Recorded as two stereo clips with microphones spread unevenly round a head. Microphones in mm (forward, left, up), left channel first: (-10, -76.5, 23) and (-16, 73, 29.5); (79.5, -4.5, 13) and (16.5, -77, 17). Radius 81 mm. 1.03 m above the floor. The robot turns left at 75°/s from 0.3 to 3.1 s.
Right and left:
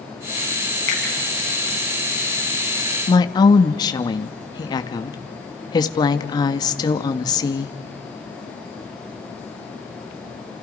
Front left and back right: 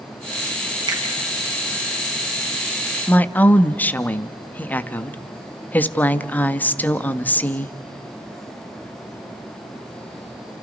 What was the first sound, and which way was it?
A finger snap, 90° right.